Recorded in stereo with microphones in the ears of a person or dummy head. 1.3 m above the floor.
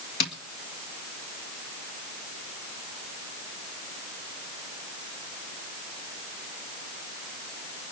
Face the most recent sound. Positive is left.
turn(degrees=60)  # may be behind; listen again after turning